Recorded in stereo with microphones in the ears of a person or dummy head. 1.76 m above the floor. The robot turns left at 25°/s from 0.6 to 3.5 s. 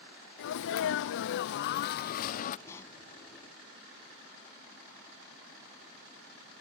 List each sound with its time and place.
0.4 s a sneeze: 105° left; by 2.6 s 55° left
2.7 s a pop: 20° left (ahead or behind); by 3.0 s 15° left (ahead or behind)